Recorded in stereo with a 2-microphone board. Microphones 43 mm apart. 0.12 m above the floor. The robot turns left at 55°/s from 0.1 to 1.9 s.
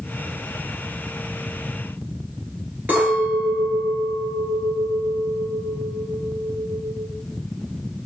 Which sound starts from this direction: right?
A clink, at 2.9 s.